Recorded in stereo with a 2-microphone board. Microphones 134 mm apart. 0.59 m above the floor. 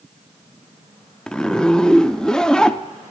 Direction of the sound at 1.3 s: 5° left (ahead or behind).